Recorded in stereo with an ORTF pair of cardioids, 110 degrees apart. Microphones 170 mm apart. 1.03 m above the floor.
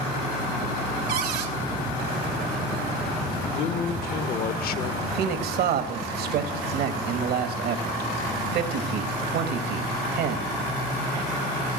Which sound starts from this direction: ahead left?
A man speaking, at 3.4 s.